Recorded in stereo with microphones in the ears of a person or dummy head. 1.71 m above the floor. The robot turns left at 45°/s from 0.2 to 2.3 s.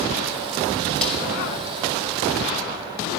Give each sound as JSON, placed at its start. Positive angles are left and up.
{"t": 1.0, "sound": "a snare drum", "side_deg": 5, "distance_m": 6.0}